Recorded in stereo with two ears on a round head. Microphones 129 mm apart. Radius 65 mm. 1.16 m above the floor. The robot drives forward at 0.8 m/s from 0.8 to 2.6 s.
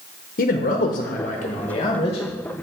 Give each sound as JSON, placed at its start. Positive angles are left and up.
{"t": 0.4, "sound": "a man speaking", "side_deg": 60, "distance_m": 0.8}